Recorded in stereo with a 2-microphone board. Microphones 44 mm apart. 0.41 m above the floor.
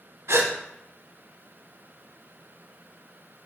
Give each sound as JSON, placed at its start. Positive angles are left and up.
{"t": 0.3, "sound": "a gasp", "side_deg": -70, "distance_m": 0.6}